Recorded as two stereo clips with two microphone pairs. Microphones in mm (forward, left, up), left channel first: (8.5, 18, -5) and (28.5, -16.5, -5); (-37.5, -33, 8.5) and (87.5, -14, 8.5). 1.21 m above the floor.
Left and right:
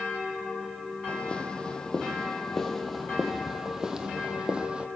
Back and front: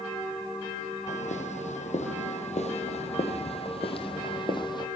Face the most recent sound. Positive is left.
turn(degrees=-120)